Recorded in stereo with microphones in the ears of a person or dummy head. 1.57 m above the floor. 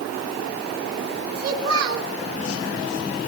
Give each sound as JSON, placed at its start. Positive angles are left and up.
{"t": 1.4, "sound": "a child speaking", "side_deg": -80, "distance_m": 4.0}